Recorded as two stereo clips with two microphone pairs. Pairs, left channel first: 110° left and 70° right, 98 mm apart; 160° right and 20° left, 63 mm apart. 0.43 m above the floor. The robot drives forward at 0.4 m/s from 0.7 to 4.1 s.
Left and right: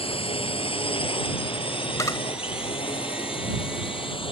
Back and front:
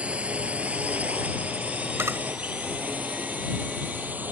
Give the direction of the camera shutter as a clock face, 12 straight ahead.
10 o'clock.